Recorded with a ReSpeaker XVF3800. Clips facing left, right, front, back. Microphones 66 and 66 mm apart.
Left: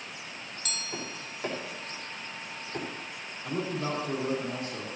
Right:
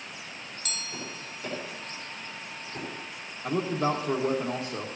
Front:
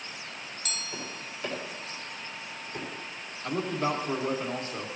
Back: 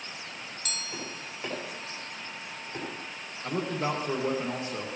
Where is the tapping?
115° left, 4.5 m.